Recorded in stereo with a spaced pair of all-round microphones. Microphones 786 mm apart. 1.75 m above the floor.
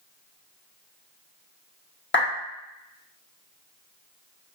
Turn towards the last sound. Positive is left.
turn(degrees=15)  # may be behind; listen again after turning